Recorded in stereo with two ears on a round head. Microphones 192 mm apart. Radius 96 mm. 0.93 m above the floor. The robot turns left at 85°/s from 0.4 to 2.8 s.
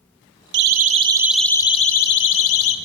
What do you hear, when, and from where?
0.5 s a siren: 55° right (ahead or behind), 3 m; by 2.8 s 65° left (ahead or behind), 3.5 m